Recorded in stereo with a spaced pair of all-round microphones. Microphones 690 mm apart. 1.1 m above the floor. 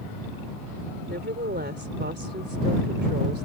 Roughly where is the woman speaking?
Centre.